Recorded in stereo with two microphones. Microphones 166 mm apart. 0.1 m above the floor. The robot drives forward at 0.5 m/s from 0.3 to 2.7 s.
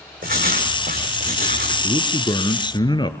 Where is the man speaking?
30° left (ahead or behind), 1.5 m; by 3.1 s 25° left (ahead or behind), 1.6 m.